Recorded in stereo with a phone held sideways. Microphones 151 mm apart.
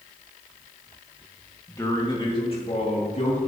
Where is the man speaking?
15° left (ahead or behind), 1.8 m; by 3.4 s 55° left (ahead or behind), 2.5 m.